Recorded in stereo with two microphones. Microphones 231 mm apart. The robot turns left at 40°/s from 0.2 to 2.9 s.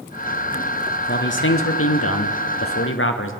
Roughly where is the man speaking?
Behind left.